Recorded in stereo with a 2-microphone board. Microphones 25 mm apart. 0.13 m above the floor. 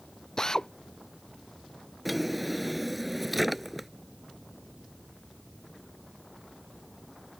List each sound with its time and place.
0.4 s a drill: 30° left (ahead or behind)
2.0 s a drawer: 5° right (ahead or behind)